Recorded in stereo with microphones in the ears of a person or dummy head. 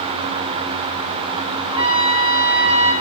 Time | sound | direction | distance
1.7 | a trumpet | 20° right (ahead or behind) | 2.5 m